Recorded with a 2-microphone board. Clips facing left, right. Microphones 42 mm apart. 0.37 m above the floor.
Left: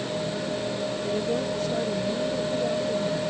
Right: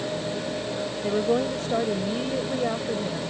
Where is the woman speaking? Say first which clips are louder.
Right 6 dB; 55° right (ahead or behind); by 3.2 s 30° right (ahead or behind).